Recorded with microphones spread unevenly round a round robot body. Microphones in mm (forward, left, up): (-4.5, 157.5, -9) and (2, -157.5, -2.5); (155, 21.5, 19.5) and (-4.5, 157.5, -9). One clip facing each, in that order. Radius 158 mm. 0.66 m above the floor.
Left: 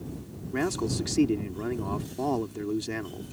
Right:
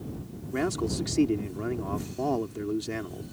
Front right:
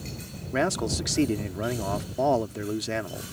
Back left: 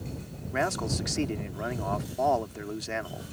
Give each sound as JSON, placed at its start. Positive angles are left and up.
{"t": 0.5, "sound": "a man speaking", "azimuth_deg": 10}